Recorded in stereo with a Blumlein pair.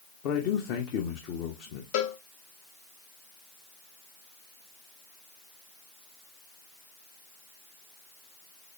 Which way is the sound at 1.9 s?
50° left.